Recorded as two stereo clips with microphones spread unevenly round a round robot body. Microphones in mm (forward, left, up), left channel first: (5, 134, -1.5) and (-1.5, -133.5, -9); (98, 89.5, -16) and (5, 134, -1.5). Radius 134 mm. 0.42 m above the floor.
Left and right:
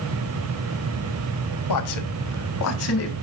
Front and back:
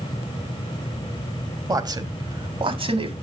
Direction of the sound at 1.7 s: 95° left.